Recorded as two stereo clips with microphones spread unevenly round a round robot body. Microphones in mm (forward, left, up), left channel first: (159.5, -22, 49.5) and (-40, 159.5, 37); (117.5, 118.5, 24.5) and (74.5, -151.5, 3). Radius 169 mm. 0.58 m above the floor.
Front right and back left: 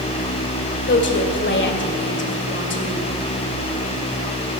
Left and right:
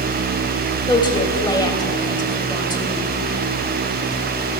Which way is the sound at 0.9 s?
5° left.